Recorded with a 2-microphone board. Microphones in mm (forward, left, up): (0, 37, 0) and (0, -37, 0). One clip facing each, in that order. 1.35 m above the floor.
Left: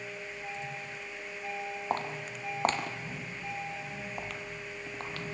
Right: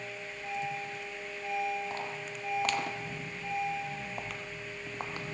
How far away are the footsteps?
About 2 m.